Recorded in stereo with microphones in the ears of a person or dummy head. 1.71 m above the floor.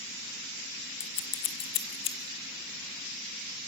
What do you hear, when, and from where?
1.0 s scissors: 30° left (ahead or behind), 1.1 m